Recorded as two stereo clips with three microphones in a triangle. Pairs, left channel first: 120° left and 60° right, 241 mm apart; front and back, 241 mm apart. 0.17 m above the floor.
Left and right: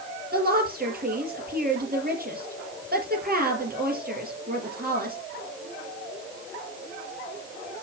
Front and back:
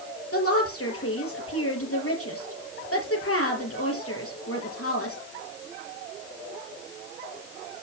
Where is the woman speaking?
10° right, 4.5 m.